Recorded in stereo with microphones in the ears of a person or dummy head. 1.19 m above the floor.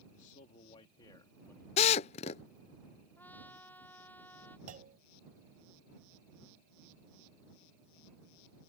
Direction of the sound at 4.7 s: 45° right (ahead or behind).